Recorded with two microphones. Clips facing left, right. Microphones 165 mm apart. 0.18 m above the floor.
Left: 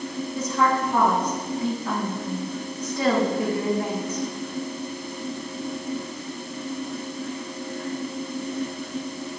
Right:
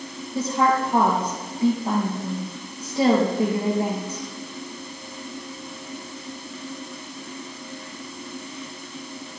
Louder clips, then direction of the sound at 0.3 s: Right 2 dB; 30° right (ahead or behind).